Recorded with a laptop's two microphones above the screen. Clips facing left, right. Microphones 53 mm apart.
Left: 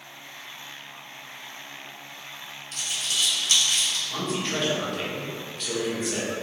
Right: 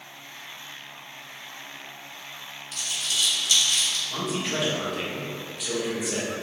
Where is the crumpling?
45° left (ahead or behind), 1.7 m.